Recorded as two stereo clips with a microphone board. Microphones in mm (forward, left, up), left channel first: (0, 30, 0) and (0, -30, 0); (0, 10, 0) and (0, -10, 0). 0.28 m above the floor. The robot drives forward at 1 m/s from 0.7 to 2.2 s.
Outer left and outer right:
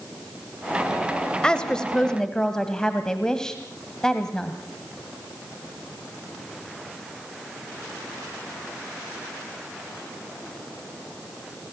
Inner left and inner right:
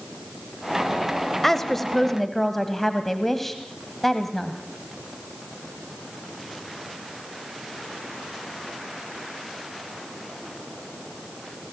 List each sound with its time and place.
1.4 s a woman speaking: 15° left (ahead or behind), 1.3 m; by 4.5 s 10° left (ahead or behind), 1.7 m